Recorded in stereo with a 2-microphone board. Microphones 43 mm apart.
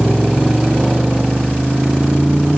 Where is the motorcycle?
10° right (ahead or behind); by 2.6 s 20° right (ahead or behind).